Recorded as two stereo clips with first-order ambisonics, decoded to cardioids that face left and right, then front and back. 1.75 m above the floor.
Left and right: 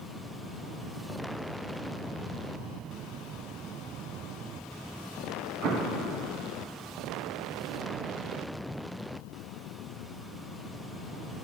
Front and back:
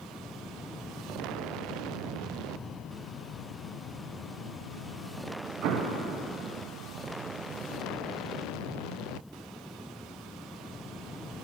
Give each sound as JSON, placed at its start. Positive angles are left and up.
{"t": 5.6, "sound": "an explosion", "azimuth_deg": -145, "distance_m": 0.9}